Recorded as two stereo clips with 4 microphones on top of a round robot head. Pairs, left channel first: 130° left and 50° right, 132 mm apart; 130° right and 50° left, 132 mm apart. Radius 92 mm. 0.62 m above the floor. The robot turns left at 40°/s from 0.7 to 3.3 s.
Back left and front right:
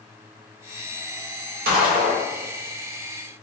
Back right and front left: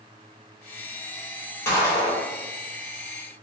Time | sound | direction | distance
1.6 | a gunshot | 60° right | 0.6 m